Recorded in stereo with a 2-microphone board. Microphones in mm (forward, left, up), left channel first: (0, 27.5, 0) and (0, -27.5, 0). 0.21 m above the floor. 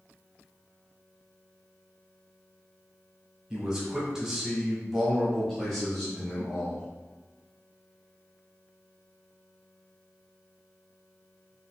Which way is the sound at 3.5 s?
15° right (ahead or behind).